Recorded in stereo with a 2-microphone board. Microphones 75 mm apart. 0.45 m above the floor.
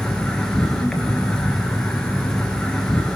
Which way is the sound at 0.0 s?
10° left (ahead or behind).